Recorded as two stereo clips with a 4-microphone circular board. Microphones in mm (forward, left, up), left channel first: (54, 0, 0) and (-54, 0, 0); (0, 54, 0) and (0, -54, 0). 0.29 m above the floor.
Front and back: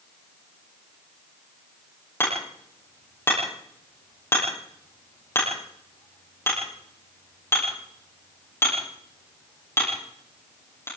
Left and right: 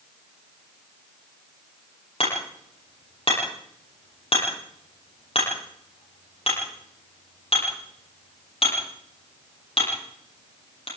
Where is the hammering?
65° left, 10 m.